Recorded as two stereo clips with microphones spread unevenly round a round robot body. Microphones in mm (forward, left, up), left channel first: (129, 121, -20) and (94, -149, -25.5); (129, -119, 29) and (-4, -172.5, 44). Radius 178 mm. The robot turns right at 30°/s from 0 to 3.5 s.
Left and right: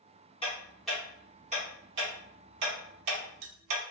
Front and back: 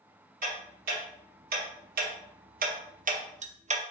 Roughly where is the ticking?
Behind.